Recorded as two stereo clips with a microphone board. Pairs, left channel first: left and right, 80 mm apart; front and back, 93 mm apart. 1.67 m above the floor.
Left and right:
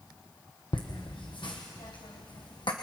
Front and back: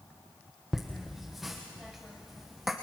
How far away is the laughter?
About 1.2 m.